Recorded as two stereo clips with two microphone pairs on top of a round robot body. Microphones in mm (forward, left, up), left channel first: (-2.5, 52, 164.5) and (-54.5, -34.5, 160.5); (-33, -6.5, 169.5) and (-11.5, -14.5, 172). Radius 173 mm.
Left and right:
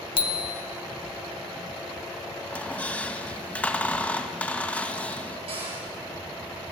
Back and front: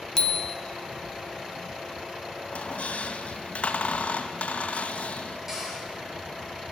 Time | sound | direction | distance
0.2 | a bicycle bell | 90° left | 2 m
2.5 | a squeak | 135° left | 2 m
5.5 | a cupboard door | 95° right | 7 m